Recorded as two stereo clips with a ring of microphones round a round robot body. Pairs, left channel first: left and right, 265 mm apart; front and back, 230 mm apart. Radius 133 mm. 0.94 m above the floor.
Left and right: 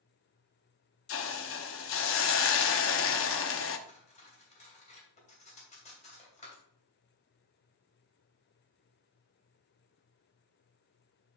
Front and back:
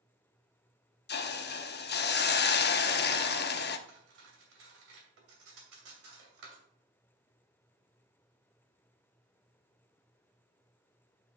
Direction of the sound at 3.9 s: 155° left.